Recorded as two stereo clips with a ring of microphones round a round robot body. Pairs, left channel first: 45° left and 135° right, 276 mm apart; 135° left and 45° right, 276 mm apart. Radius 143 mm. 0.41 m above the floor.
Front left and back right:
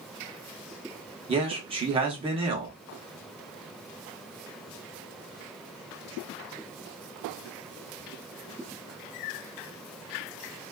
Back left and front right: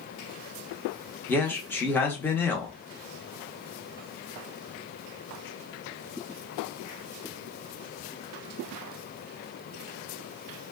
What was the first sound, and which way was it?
A man speaking, 155° right.